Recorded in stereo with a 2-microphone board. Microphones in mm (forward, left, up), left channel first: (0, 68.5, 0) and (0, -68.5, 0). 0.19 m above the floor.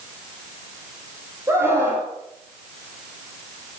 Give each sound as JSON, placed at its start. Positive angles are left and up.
{"t": 1.5, "sound": "a scream", "side_deg": -20, "distance_m": 8.5}